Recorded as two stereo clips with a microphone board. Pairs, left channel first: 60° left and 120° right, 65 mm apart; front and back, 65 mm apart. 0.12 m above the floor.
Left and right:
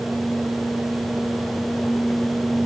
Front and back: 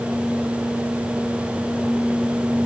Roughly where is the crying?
No crying in this recording.